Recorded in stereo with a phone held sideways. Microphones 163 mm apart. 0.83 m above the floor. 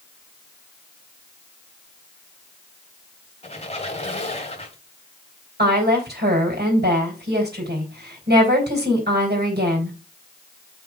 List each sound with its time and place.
3.4 s a squeak: 40° left (ahead or behind), 1.5 m
5.6 s a woman speaking: 80° right, 3.5 m